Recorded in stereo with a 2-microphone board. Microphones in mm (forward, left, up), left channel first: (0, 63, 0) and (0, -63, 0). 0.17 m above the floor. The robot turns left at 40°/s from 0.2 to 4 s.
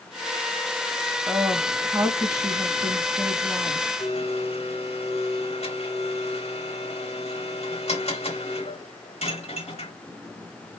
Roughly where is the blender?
Left.